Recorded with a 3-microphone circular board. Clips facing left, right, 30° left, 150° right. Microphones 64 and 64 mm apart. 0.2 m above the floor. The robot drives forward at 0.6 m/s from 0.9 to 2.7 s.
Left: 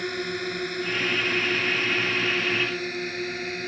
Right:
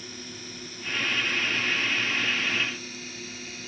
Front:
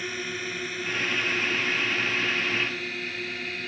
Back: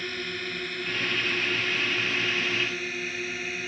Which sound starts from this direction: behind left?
A drone, at 0.0 s.